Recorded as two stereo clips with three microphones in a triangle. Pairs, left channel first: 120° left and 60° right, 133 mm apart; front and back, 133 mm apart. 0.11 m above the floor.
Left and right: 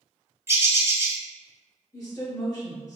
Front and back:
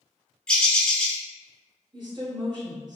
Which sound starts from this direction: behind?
A woman speaking, at 1.9 s.